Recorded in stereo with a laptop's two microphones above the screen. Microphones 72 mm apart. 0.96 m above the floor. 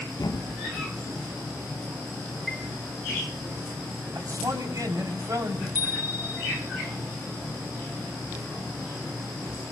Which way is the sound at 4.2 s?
55° right (ahead or behind).